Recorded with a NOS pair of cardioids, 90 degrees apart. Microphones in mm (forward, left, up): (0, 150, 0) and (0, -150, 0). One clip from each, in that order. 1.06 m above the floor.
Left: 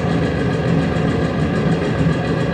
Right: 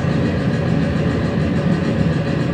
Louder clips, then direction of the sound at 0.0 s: Left 1 dB; 55° left.